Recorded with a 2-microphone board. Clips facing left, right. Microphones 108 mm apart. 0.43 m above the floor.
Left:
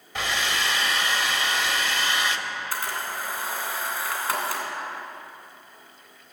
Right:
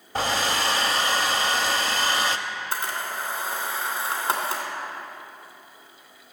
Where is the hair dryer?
35° right (ahead or behind), 0.5 m.